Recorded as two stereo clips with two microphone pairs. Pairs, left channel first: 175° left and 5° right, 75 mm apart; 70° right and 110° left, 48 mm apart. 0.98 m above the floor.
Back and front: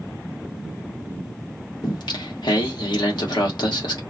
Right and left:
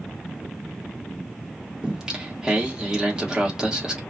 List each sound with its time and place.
1.8 s singing: 170° right, 1.0 m